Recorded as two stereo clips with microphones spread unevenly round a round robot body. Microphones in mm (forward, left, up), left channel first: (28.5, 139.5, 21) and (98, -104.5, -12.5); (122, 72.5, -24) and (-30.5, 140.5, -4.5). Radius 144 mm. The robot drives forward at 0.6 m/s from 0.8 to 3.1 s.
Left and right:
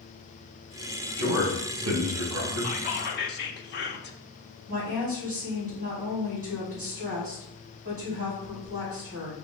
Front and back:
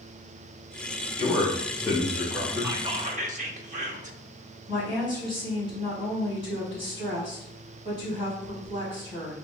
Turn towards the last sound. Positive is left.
turn(degrees=-130)